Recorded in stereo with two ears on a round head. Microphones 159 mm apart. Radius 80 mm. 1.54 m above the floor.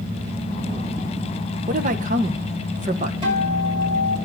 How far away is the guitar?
About 7.5 m.